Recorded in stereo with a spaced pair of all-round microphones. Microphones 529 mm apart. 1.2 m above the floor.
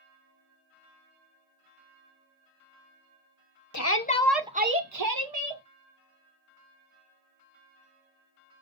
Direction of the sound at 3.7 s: 35° left (ahead or behind).